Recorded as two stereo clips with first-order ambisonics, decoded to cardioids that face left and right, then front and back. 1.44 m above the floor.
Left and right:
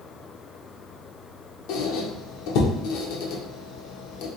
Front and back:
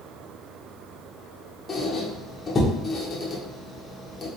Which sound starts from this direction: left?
A squeak, at 1.7 s.